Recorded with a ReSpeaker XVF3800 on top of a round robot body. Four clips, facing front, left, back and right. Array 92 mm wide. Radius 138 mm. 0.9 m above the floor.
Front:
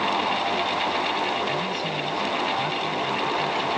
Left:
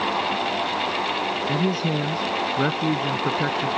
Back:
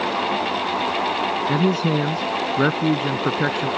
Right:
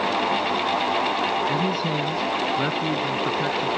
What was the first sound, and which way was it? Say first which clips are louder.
A man speaking: even, back 7 dB; 170° left.